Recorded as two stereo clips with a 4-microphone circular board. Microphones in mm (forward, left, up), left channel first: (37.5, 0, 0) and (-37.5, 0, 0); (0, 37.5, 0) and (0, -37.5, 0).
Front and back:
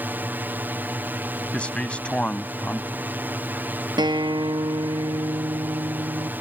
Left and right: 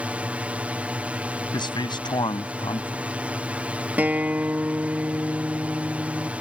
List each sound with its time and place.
0.0 s a drone: 145° right
1.5 s a man speaking: 75° left
4.0 s a guitar: 160° right